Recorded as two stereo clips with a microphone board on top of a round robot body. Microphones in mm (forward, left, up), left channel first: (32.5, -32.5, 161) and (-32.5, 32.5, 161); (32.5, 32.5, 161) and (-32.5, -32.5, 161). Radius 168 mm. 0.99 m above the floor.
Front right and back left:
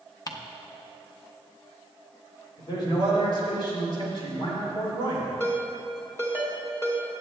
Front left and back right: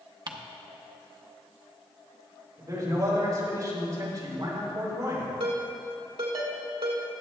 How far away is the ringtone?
About 2.5 m.